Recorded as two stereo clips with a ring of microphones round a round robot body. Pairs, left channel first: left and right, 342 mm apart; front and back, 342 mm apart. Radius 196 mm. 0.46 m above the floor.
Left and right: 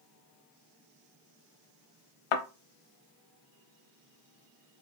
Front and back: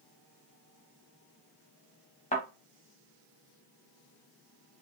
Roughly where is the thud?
Left.